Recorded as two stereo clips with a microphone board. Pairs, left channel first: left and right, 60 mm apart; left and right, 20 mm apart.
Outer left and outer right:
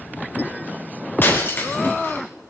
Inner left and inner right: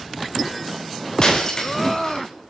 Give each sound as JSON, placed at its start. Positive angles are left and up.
{"t": 1.2, "sound": "breaking glass", "side_deg": 30, "distance_m": 6.5}